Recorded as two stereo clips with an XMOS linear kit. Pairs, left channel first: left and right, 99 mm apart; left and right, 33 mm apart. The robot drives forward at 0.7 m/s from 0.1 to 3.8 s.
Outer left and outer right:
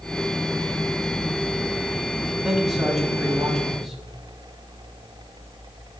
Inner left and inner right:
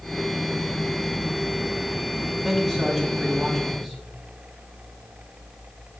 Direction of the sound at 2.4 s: Centre (ahead or behind).